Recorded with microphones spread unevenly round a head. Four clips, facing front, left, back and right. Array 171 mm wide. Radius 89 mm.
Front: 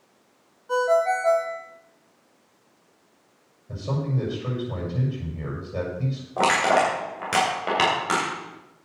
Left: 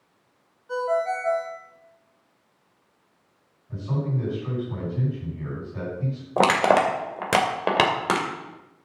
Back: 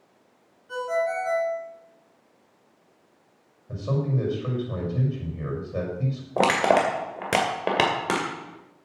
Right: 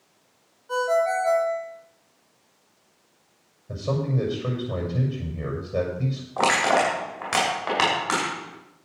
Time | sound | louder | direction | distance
0.7 | a ringtone | right 2 dB, front 5 dB | 5° right | 2.5 m
3.7 | a man speaking | right 3 dB, back 1 dB | 105° right | 5.5 m
6.4 | crushing | left 3 dB, even | 125° left | 2 m